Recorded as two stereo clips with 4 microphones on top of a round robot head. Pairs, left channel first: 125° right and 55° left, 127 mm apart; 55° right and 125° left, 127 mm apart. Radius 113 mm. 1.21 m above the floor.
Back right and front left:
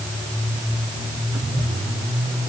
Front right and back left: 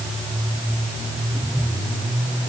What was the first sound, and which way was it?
Only background noise.